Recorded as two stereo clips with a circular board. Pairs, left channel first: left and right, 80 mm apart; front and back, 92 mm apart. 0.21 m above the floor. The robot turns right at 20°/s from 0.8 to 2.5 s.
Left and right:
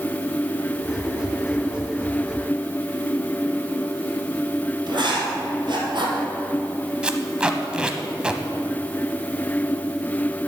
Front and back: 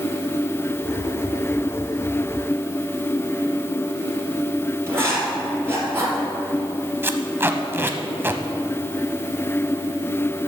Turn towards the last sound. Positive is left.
turn(degrees=-155)